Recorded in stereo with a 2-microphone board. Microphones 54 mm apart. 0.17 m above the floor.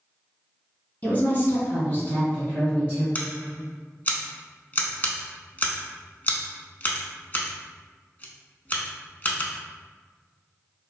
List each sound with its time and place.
1.0 s a woman speaking: 30° left (ahead or behind), 1.4 m; by 3.0 s 20° left (ahead or behind), 1.8 m
3.1 s scissors: 30° left (ahead or behind), 0.5 m